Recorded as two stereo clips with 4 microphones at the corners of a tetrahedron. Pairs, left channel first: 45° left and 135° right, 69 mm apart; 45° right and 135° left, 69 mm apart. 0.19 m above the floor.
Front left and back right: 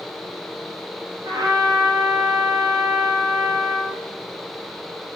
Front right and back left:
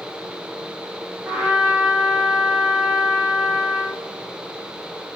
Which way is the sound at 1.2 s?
155° right.